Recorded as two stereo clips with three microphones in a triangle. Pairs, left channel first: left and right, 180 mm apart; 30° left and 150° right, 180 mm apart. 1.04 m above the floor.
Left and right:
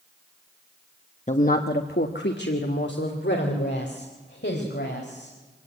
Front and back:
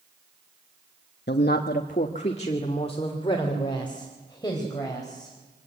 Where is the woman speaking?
45° left, 1.1 m; by 5.3 s 100° left, 5 m.